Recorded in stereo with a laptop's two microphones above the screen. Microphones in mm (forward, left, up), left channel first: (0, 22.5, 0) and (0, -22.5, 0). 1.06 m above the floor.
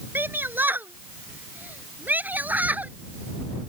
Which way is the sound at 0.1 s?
50° right (ahead or behind).